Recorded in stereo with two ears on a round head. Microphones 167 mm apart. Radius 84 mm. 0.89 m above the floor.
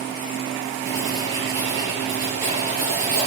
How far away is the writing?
About 5 m.